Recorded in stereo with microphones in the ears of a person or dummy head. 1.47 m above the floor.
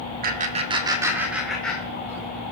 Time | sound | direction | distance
0.2 | laughter | 50° right (ahead or behind) | 1.4 m